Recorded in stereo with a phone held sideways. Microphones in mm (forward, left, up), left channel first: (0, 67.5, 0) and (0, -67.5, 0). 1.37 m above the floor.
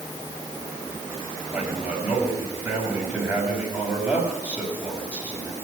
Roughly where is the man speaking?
Centre.